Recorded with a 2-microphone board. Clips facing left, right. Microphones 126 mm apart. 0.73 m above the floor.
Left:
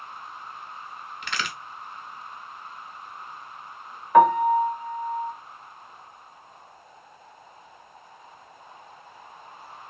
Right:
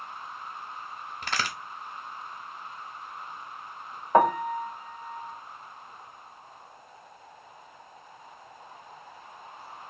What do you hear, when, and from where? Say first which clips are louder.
1.2 s a crack: right 1 dB; 35° right (ahead or behind), 0.7 m
4.1 s a piano: left 6 dB; 30° right (ahead or behind), 0.8 m